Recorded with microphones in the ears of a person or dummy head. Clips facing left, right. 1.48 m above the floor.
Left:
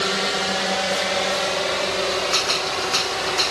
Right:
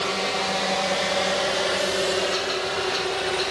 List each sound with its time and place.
0.0 s a drone: 20° left (ahead or behind); by 3.5 s 20° right (ahead or behind)
2.3 s a gunshot: 70° left (ahead or behind)